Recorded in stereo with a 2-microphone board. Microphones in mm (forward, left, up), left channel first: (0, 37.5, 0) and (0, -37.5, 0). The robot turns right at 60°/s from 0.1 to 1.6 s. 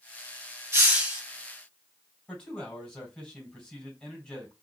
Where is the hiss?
35° right (ahead or behind), 1.7 m; by 1.2 s 5° right (ahead or behind), 1.7 m.